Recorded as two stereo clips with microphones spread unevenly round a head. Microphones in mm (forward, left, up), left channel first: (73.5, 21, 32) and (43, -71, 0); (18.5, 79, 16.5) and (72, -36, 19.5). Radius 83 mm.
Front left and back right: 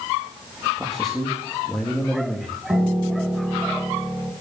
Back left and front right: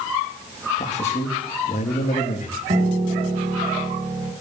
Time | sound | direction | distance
0.8 | a man speaking | 160° left | 2.5 m
2.7 | a piano | 40° right | 2.5 m